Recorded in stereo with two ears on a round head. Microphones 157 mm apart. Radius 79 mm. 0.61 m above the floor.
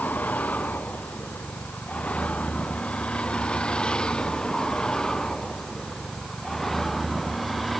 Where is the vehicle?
10° left (ahead or behind); by 7.8 s centre (ahead or behind).